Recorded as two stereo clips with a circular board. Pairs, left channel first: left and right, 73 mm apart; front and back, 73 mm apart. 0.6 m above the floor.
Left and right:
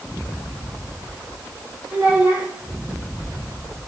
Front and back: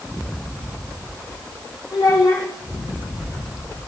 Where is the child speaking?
25° right, 4.5 m.